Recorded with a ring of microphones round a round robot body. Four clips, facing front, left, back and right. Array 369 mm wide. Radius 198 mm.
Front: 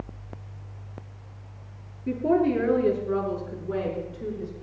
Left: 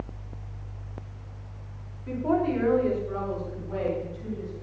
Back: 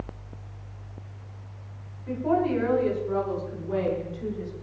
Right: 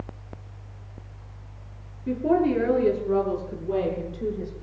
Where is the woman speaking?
40° right, 5 m; by 4.5 s 75° right, 6 m.